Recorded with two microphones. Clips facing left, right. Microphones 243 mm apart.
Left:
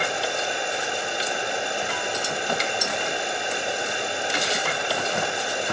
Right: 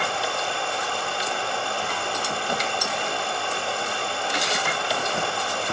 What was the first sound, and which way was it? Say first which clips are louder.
Running water: left 1 dB; 20° left (ahead or behind).